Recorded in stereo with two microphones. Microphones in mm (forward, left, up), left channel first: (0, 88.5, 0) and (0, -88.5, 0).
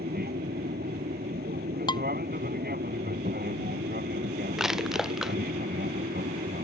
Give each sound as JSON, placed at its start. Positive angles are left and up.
{"t": 0.0, "sound": "an aircraft", "side_deg": -60}
{"t": 1.9, "sound": "dishes clattering", "side_deg": 25}
{"t": 4.6, "sound": "crushing", "side_deg": -5}